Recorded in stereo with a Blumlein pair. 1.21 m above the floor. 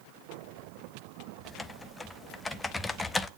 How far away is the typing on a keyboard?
About 0.7 m.